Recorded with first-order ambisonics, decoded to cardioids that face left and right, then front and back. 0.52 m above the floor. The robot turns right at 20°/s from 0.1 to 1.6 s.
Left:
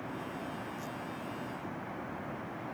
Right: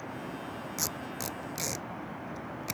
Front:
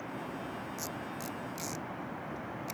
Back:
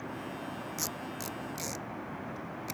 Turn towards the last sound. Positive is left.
turn(degrees=-100)